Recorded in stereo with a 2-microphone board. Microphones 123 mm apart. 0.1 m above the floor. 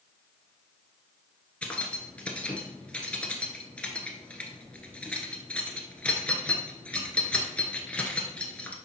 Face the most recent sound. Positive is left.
turn(degrees=10)  # may be behind; listen again after turning